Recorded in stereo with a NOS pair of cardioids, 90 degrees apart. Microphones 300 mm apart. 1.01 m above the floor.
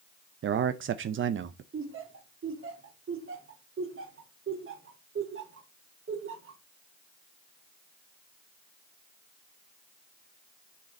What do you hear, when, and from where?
0.4 s a man speaking: 45° right, 0.6 m
1.7 s laughter: 45° right, 2.5 m